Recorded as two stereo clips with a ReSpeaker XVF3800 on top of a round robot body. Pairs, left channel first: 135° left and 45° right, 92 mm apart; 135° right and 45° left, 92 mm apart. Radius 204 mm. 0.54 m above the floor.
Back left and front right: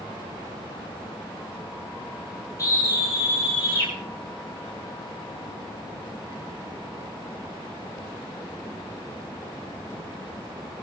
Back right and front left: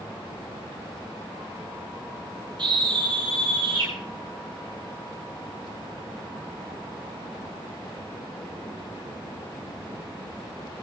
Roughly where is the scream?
Left.